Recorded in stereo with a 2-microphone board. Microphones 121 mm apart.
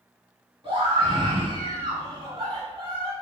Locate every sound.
0.6 s a scream: 45° right (ahead or behind), 1.3 m